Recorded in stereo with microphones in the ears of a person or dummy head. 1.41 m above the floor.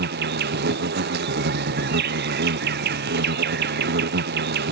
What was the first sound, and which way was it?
An insect, 55° right (ahead or behind).